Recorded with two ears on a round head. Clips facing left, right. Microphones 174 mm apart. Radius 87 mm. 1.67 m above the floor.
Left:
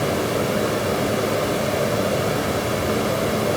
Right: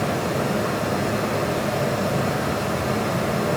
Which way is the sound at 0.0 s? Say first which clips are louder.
Left 2 dB; 45° left (ahead or behind).